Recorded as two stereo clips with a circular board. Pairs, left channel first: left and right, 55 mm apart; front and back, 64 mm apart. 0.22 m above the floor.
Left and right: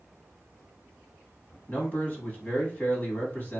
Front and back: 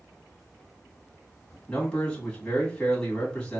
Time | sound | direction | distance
1.7 | a man speaking | 70° left | 1.7 m